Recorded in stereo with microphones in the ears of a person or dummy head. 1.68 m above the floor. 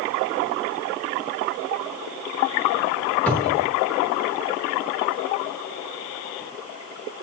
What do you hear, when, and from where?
3.3 s a cupboard door: 10° left (ahead or behind), 4 m